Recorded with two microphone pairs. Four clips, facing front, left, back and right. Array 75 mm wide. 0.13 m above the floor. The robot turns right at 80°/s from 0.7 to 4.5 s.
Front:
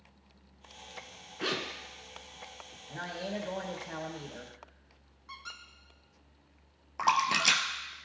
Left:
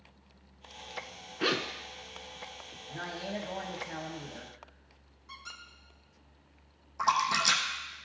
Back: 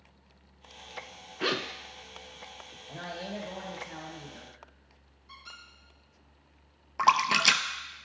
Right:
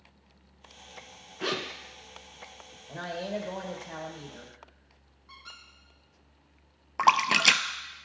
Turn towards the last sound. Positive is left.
turn(degrees=-105)